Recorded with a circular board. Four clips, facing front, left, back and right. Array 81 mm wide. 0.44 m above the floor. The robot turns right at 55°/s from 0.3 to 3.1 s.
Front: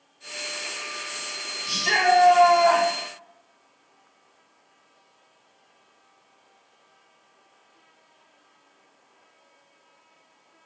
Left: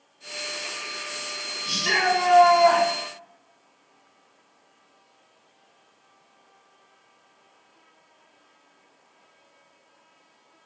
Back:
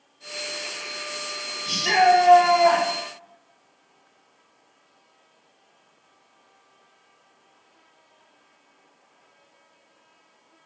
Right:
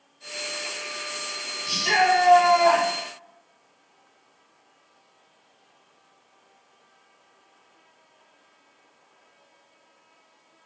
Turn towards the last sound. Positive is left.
turn(degrees=-140)